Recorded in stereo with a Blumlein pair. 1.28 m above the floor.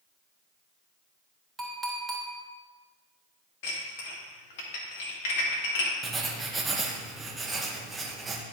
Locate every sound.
1.6 s a clink: 10° right, 2.5 m
3.6 s dishes clattering: 50° left, 1.5 m
6.0 s writing: 10° right, 0.9 m